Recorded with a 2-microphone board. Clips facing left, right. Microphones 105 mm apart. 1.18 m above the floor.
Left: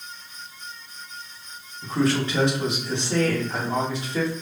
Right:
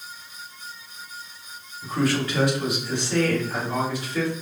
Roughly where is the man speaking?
Left.